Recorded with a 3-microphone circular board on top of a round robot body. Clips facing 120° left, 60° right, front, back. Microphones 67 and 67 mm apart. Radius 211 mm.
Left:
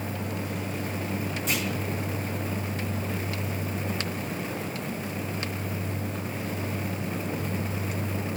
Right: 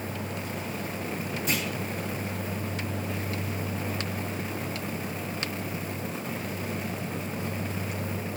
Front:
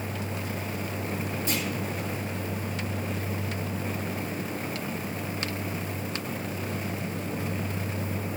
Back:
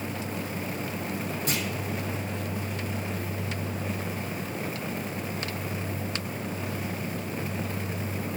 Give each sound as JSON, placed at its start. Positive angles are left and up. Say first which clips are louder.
{"t": 1.5, "sound": "a clunk", "louder": "even, even", "azimuth_deg": -145, "distance_m": 2.0}